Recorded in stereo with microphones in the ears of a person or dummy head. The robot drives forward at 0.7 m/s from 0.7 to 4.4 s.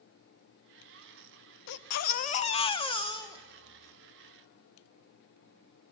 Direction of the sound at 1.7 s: 60° left (ahead or behind).